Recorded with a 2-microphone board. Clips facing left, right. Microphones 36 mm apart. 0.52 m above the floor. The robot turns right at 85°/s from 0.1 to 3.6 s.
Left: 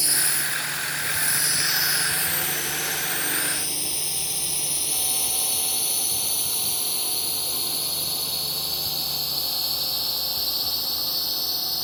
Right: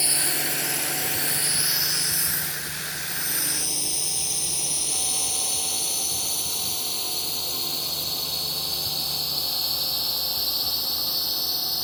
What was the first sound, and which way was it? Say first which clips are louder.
A drone: even; 30° right (ahead or behind).